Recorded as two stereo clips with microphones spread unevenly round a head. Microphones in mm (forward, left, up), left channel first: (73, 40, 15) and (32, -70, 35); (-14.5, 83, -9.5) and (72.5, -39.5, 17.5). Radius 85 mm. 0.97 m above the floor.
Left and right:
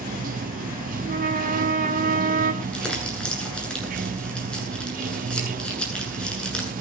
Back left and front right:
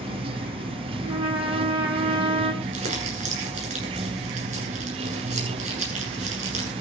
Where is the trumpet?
115° right, 5 m.